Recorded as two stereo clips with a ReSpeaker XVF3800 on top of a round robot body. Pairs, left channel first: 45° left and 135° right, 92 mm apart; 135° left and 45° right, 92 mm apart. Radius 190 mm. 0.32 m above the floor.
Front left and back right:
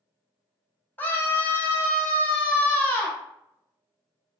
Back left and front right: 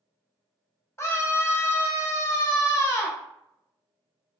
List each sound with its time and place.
1.0 s a scream: 100° left, 1.0 m